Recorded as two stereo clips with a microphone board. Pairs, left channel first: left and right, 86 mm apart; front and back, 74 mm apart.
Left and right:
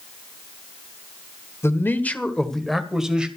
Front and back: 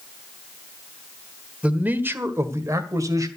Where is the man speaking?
120° left, 1.4 m; by 3.3 s 165° right, 1.9 m.